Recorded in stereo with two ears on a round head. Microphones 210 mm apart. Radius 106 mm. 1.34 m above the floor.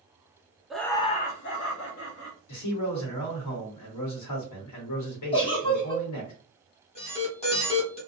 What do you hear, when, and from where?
0.7 s laughter: 5° right (ahead or behind), 0.5 m; by 2.4 s 80° left, 0.9 m
2.5 s a man speaking: 85° left, 1.0 m
5.3 s a giggle: 25° left (ahead or behind), 0.8 m
7.0 s an alarm: 25° left (ahead or behind), 1.0 m